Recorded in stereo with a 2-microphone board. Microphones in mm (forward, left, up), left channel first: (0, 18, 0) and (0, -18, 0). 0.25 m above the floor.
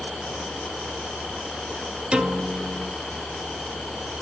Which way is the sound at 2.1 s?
25° right (ahead or behind).